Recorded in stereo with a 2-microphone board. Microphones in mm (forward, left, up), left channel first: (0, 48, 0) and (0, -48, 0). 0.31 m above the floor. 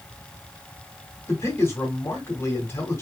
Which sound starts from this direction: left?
A man speaking, at 1.3 s.